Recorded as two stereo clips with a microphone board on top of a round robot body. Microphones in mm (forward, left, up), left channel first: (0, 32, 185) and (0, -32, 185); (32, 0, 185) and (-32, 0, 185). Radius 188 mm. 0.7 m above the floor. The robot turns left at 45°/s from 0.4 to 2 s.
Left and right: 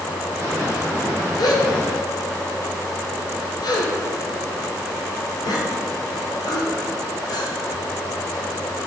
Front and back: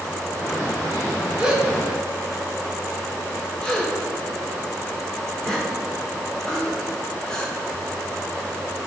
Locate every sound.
1.4 s a gasp: 105° left, 2.5 m; by 7.5 s 80° left, 2.5 m